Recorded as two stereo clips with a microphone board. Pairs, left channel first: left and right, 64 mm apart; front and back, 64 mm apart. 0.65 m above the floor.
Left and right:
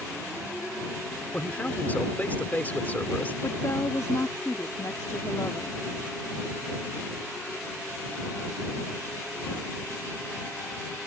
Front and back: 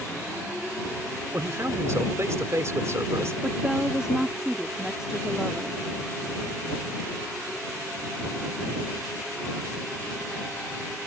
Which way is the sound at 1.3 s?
150° left.